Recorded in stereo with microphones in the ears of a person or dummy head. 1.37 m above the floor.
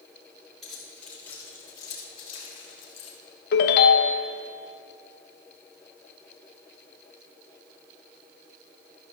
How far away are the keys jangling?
About 3.5 m.